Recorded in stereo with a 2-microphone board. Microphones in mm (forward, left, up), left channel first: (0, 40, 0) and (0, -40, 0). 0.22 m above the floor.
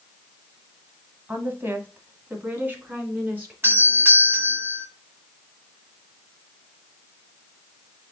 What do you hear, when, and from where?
1.3 s a woman speaking: 25° right (ahead or behind), 1.0 m; by 3.5 s 20° right (ahead or behind), 2.5 m
3.6 s a doorbell: 30° right (ahead or behind), 1.8 m